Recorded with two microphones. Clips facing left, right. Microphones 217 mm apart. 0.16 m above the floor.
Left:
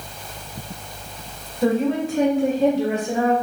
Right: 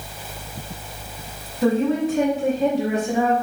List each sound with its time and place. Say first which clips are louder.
1.6 s a woman speaking: right 1 dB; 10° left (ahead or behind), 1.2 m; by 3.3 s 25° right (ahead or behind), 1.5 m